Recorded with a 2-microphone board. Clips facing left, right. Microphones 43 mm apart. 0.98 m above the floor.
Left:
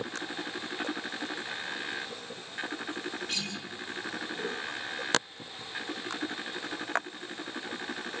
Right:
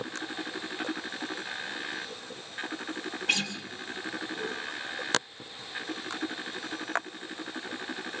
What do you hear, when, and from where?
3.3 s a guitar: 80° right, 6 m